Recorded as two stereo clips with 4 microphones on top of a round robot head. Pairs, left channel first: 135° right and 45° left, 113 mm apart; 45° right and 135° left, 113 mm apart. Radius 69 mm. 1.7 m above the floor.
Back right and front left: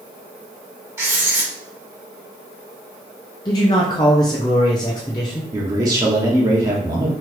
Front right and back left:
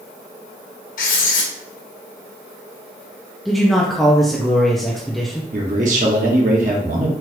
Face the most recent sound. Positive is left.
turn(degrees=105)